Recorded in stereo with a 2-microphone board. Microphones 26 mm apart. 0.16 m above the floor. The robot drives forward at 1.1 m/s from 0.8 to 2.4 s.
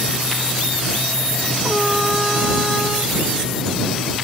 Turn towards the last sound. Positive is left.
turn(degrees=-10)  # may be behind; listen again after turning